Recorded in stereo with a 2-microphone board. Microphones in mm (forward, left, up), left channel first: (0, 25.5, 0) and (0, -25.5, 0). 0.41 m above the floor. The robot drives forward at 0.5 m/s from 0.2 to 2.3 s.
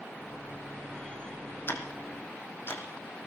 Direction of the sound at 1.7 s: 50° left (ahead or behind).